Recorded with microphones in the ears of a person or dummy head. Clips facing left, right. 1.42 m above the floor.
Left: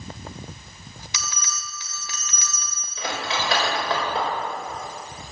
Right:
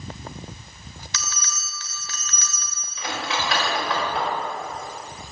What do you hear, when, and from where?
1.1 s a bell: 15° left (ahead or behind), 1.4 m
3.0 s cutlery clinking: 30° left (ahead or behind), 4 m